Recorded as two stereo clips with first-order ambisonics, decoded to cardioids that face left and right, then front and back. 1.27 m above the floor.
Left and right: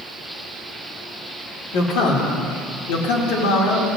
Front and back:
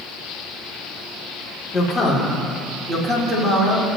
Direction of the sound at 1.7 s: 90° left.